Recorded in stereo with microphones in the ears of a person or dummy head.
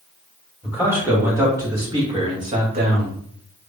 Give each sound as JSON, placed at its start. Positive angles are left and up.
{"t": 0.6, "sound": "a man speaking", "side_deg": -10, "distance_m": 1.9}